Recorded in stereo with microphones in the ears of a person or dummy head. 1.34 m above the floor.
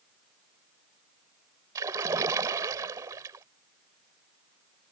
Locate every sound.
1.8 s a splash: 15° right (ahead or behind)